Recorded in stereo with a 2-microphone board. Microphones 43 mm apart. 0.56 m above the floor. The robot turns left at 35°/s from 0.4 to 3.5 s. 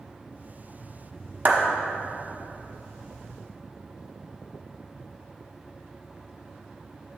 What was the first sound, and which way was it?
A clap, 35° right (ahead or behind).